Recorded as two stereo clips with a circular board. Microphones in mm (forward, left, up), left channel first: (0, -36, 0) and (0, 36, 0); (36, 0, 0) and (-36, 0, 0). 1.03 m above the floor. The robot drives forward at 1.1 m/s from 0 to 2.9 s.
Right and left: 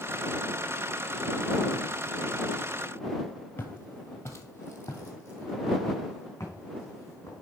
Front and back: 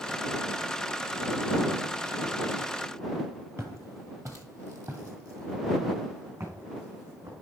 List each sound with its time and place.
3.6 s footsteps: 140° right, 1.5 m